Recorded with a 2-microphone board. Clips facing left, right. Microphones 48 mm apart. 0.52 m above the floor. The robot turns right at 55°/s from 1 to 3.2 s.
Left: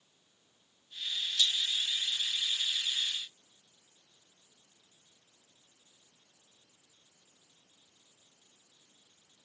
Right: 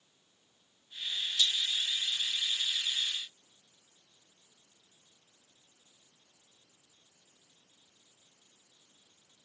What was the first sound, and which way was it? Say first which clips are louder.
A rattle: even; 20° right (ahead or behind).